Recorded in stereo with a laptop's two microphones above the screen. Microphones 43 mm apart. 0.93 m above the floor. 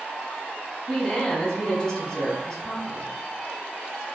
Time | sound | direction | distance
0.9 | a woman speaking | 20° left (ahead or behind) | 1.1 m